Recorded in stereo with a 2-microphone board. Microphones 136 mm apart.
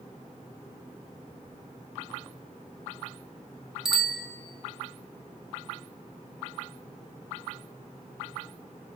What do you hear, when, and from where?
3.9 s a bicycle bell: 5° right (ahead or behind), 2 m